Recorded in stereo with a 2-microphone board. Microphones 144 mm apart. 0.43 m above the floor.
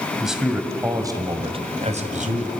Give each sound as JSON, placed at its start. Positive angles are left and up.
{"t": 0.2, "sound": "a man speaking", "side_deg": 0, "distance_m": 2.5}